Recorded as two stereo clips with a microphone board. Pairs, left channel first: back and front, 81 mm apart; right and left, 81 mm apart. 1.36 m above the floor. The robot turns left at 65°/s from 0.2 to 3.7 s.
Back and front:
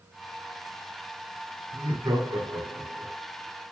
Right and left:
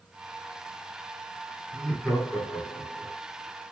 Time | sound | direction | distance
1.7 | laughter | 10° left | 1.9 m